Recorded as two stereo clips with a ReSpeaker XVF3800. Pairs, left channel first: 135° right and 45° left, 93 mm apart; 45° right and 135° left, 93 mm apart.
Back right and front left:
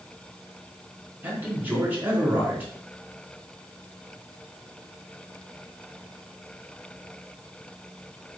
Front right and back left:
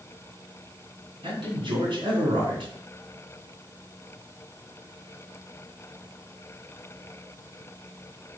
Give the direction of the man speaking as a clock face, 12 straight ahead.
8 o'clock.